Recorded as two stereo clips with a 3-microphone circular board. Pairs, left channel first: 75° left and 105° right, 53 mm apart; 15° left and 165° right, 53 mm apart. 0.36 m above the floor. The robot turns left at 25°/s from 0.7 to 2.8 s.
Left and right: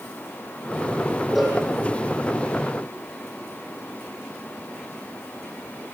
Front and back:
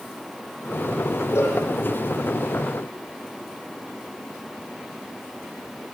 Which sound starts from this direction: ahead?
A cowbell, at 1.4 s.